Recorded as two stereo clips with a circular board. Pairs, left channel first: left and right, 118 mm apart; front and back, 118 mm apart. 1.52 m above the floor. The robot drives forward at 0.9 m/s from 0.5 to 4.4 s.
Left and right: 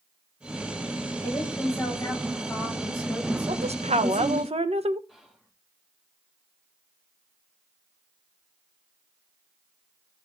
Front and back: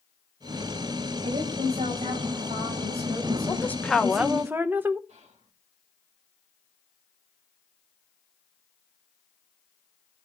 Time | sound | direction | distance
1.2 | a woman speaking | 160° left | 7 m
3.5 | a woman speaking | 65° right | 1.2 m
5.1 | whispering | straight behind | 3 m